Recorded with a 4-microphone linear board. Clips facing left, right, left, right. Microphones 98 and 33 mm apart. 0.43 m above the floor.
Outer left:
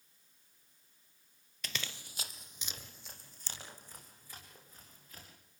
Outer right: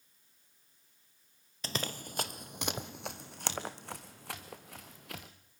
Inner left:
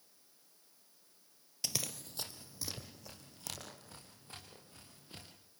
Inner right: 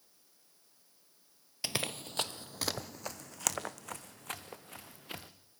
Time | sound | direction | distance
1.6 | running footsteps | 30° right (ahead or behind) | 0.5 m